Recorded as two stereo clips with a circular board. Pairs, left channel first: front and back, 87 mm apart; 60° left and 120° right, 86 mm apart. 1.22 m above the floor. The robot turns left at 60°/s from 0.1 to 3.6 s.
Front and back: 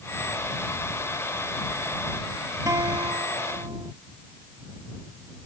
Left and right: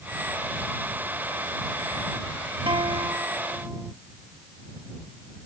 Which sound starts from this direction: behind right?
A guitar, at 2.7 s.